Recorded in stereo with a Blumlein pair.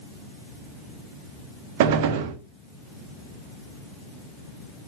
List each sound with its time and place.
1.8 s a gunshot: 50° right, 1.1 m